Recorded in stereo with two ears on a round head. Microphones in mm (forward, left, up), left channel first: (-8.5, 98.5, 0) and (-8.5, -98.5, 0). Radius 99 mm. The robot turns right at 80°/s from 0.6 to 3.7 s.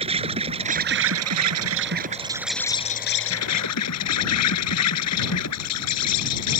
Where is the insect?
155° right; by 6.6 s 95° left.